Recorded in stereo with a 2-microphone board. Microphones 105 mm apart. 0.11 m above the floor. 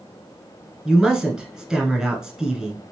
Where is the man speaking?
5° right (ahead or behind), 1.2 m.